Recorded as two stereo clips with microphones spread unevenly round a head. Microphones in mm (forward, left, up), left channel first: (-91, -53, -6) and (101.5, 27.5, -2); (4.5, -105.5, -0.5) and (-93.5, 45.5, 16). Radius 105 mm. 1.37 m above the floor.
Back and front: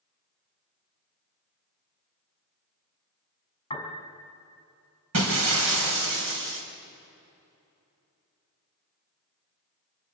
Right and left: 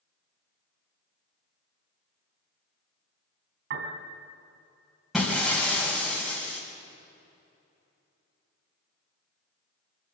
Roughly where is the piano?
Behind left.